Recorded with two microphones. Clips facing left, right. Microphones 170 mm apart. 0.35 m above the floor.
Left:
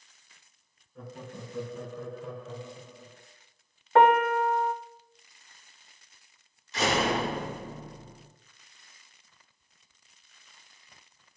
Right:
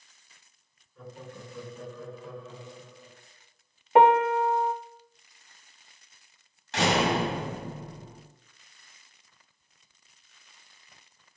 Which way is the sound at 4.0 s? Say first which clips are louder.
Right 1 dB; 15° right (ahead or behind).